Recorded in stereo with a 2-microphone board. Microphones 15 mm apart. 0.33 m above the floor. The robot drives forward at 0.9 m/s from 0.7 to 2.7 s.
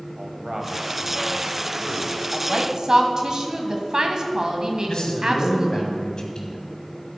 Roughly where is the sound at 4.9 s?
Left.